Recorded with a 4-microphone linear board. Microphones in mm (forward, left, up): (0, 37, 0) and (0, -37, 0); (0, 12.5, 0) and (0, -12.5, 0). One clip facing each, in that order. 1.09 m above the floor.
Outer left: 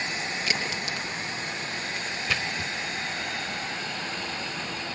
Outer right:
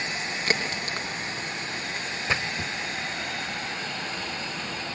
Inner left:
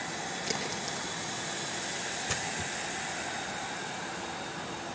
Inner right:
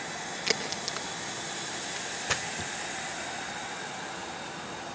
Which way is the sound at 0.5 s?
40° right (ahead or behind).